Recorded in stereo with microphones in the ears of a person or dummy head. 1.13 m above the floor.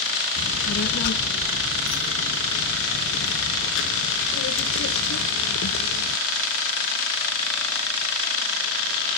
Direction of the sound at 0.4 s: 55° left (ahead or behind).